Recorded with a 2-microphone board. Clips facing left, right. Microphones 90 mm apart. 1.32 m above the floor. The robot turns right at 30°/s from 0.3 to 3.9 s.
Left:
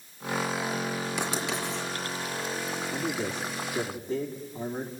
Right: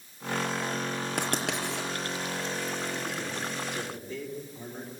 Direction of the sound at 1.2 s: 50° right (ahead or behind).